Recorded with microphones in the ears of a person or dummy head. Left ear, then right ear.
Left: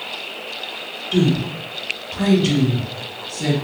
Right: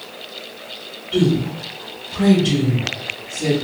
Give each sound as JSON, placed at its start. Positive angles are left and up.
{"t": 1.1, "sound": "a woman speaking", "side_deg": 65, "distance_m": 1.4}